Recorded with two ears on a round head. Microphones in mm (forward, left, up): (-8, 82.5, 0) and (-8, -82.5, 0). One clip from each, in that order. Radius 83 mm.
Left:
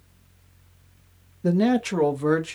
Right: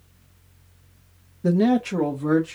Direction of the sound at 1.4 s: 5° right (ahead or behind).